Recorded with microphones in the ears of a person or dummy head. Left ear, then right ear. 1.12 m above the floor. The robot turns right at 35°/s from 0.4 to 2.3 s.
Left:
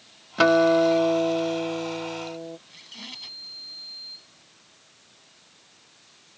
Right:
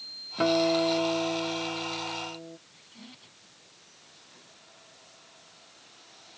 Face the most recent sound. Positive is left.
turn(degrees=65)  # may be behind; listen again after turning